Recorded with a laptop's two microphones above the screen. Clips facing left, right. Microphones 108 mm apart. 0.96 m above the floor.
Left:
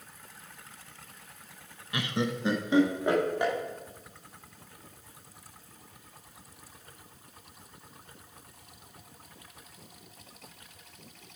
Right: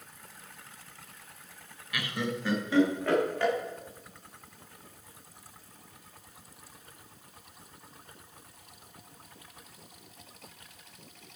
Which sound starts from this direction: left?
Laughter, at 1.9 s.